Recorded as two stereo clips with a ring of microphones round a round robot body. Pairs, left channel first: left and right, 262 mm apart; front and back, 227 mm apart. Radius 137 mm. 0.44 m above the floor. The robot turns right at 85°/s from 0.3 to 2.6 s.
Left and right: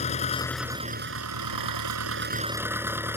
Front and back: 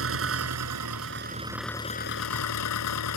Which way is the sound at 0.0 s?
155° left.